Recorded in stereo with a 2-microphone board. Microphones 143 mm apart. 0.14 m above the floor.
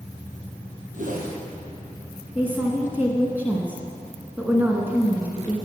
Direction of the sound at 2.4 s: 15° right (ahead or behind).